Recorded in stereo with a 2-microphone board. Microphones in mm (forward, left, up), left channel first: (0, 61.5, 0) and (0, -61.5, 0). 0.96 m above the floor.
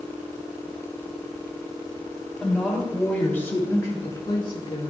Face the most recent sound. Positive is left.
turn(degrees=50)  # may be behind; listen again after turning